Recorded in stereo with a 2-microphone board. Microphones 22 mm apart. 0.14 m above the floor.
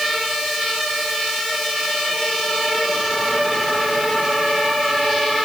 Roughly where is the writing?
I don't hear writing.